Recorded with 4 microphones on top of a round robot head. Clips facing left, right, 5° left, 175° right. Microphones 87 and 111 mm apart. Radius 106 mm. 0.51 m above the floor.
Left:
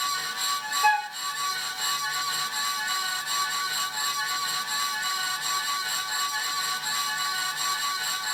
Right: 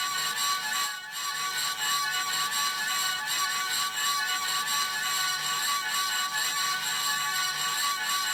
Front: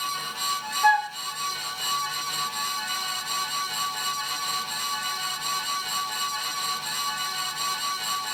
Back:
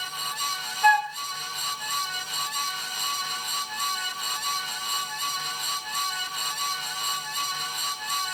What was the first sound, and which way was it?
A flute, 90° left.